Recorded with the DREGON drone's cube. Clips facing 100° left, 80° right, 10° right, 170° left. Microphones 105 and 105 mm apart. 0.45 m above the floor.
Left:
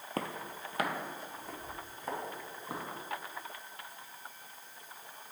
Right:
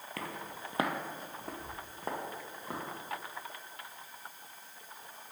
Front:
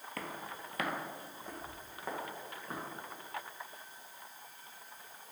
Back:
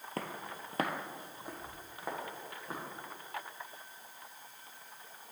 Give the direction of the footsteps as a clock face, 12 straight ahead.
7 o'clock.